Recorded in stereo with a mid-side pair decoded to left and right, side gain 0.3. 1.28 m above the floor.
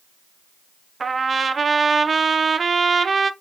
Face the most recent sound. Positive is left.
turn(degrees=-50)